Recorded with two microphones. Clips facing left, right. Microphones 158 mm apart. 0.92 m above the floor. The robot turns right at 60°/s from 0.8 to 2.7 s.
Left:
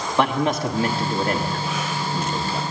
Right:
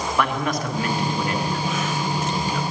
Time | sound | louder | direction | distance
0.2 | a man speaking | left 4 dB | 35° left | 1.4 m